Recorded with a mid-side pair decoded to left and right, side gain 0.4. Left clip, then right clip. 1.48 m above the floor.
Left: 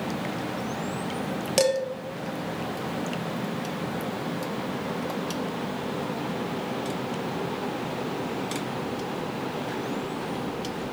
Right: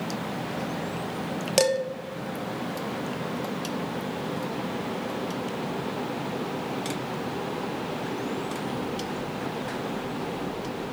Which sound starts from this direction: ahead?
Dishes clattering, at 1.6 s.